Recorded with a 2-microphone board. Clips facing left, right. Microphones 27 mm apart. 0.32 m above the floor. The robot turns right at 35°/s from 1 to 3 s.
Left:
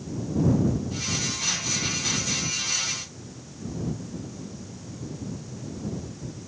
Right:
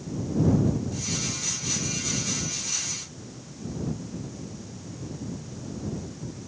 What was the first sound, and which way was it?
Only background noise.